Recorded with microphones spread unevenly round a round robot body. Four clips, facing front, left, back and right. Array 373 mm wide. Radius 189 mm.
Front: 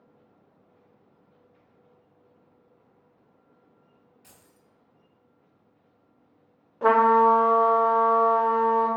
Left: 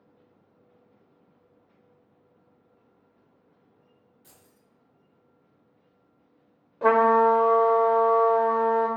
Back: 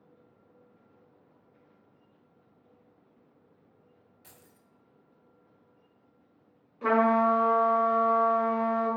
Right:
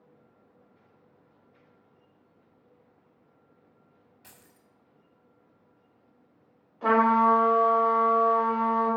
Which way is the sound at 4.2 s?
95° right.